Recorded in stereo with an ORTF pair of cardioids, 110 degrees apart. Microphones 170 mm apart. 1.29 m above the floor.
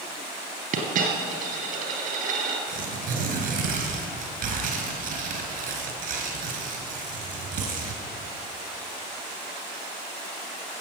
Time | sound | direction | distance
0.7 | a dropped coin | 55° right | 3.5 m
2.7 | tearing paper | 60° right | 4 m